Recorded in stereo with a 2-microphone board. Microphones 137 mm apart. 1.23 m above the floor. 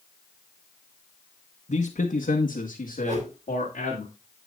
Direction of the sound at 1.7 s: 65° left (ahead or behind).